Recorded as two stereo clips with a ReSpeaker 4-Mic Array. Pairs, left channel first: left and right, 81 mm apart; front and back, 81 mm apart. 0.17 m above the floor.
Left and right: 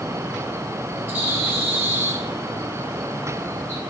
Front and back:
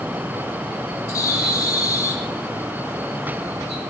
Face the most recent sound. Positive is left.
turn(degrees=-35)